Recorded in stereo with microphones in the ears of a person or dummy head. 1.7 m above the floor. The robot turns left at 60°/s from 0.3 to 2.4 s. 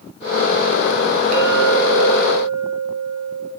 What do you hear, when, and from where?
1.3 s a clink: 55° right, 2 m; by 3.5 s 120° right, 2 m